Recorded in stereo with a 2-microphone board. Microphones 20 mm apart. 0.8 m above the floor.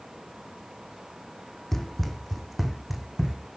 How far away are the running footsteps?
About 2.5 m.